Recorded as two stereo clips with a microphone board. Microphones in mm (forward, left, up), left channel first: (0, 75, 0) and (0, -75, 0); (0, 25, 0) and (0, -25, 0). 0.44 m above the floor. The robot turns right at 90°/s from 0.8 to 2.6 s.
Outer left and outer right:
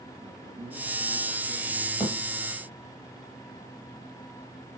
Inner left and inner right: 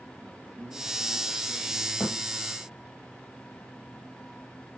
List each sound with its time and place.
0.2 s a man speaking: 45° right, 4.5 m; by 1.9 s 55° left, 4.5 m
2.0 s a thud: 30° left (ahead or behind), 5.5 m; by 2.1 s 45° left (ahead or behind), 5.5 m